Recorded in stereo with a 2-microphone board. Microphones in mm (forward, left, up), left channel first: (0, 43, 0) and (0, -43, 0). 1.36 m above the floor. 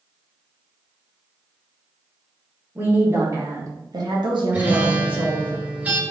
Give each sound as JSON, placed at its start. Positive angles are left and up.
{"t": 2.8, "sound": "a woman speaking", "side_deg": -20, "distance_m": 1.4}
{"t": 4.5, "sound": "a guitar", "side_deg": -20, "distance_m": 2.0}